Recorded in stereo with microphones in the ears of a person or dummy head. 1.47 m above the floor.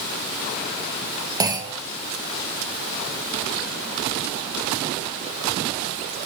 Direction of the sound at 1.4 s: 20° right (ahead or behind).